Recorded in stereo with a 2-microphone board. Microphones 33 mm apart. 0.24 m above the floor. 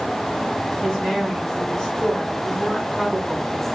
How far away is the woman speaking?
About 1.7 m.